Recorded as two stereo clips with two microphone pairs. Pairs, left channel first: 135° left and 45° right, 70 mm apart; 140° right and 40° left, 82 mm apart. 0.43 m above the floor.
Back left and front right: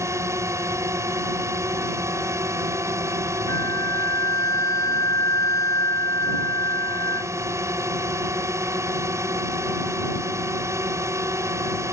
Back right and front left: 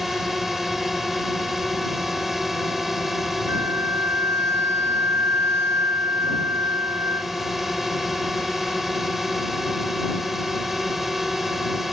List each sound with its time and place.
0.0 s a drone: 45° right
3.5 s a flute: 95° left